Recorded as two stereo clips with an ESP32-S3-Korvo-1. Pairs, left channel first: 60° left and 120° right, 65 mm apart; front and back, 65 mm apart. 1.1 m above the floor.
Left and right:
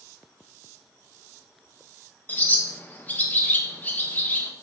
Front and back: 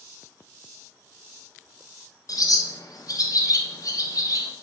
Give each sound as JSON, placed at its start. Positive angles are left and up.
{"t": 2.3, "sound": "a bird", "azimuth_deg": 0, "distance_m": 1.2}